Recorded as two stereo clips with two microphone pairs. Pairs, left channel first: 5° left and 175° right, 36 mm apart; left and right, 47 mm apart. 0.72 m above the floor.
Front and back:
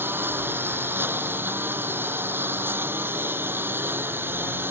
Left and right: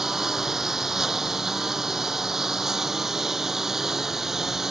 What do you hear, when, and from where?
0.0 s a lawn mower: 170° right